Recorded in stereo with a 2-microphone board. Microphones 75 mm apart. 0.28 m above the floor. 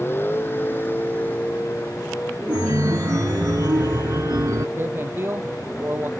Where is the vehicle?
30° left (ahead or behind); by 6.2 s 15° left (ahead or behind).